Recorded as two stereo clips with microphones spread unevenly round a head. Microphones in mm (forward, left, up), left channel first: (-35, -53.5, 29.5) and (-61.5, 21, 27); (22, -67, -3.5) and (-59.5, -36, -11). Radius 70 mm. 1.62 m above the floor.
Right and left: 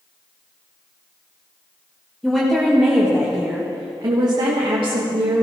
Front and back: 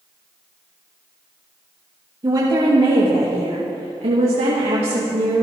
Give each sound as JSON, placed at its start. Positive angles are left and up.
{"t": 2.2, "sound": "a woman speaking", "azimuth_deg": -155, "distance_m": 2.5}